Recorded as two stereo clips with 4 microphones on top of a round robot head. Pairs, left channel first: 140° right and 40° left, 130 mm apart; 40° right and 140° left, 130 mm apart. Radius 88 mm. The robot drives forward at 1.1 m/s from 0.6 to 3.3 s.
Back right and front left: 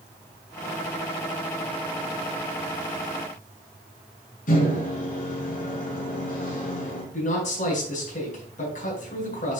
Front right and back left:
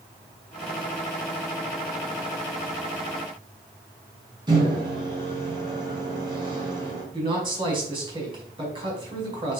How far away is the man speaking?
About 4.5 m.